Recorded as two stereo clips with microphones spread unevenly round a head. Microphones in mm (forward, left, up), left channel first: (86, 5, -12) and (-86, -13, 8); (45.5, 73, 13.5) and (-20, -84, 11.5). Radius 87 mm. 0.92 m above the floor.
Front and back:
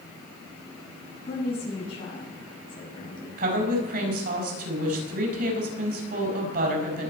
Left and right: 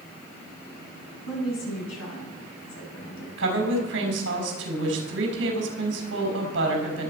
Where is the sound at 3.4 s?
135° right, 6 m.